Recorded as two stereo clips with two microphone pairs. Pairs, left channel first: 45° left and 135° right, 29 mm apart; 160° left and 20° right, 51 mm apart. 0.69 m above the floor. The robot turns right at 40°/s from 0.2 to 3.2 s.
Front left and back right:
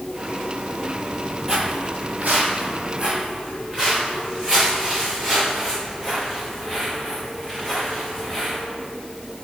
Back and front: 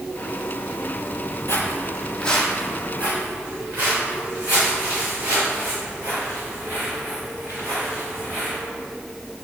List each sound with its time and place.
1.5 s footsteps: 155° left, 1.2 m; by 8.6 s 60° right, 9.5 m